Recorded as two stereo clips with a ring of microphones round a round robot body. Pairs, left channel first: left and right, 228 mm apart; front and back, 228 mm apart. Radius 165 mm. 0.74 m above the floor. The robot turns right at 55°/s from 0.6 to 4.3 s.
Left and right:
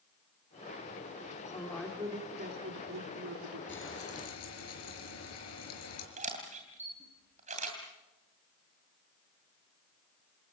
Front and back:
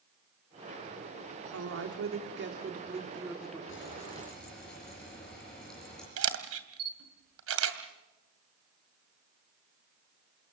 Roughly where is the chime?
I don't hear a chime.